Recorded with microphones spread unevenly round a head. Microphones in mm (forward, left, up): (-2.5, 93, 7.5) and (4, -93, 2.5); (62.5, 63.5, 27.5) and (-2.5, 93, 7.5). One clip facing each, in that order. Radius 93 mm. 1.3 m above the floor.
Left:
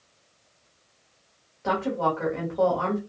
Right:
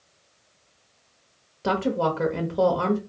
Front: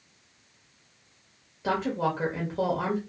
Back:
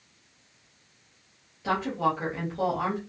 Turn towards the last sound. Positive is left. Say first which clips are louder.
# right 2 dB, back 1 dB
turn(degrees=-95)